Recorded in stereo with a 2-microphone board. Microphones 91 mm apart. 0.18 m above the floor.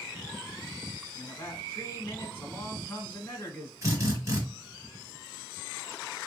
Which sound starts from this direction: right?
A drill, at 3.8 s.